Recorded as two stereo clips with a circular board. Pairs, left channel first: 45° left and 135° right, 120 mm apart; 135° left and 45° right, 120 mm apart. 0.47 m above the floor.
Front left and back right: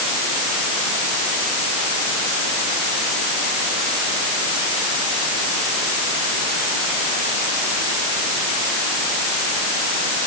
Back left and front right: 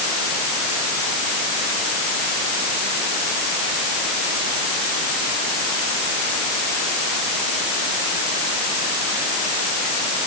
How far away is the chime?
I don't hear a chime.